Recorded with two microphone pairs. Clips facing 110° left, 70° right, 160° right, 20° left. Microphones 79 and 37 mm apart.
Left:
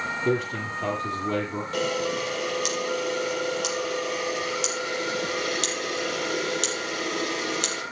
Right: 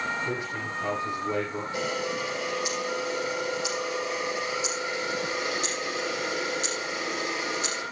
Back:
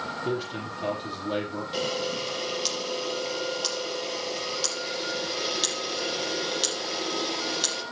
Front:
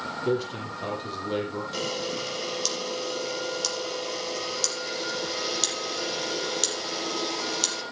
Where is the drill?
I don't hear a drill.